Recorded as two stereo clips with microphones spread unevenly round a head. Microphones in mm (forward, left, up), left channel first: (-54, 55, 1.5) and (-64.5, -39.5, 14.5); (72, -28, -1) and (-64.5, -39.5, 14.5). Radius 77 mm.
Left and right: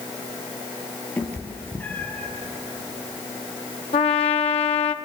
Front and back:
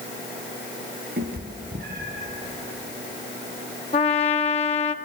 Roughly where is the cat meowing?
Behind.